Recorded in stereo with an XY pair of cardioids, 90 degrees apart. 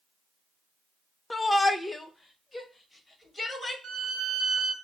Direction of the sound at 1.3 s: 20° left.